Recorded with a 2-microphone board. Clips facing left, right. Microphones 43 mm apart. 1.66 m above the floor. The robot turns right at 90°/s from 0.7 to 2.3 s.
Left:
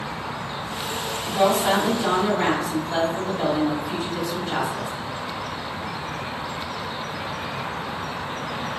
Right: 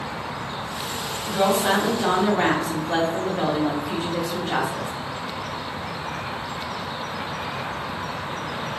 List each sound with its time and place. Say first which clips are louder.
1.3 s a woman speaking: left 1 dB; straight behind, 1.2 m; by 4.9 s 85° right, 1.2 m